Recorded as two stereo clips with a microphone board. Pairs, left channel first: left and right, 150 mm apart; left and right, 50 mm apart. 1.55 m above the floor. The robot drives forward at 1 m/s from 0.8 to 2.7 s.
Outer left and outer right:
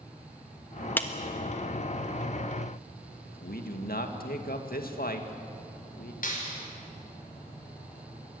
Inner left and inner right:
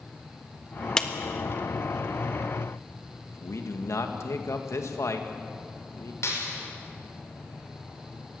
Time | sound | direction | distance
1.0 | a clap | 15° left (ahead or behind) | 1.4 m
3.3 | a man speaking | 80° left | 2 m
6.2 | a clap | 70° left (ahead or behind) | 5.5 m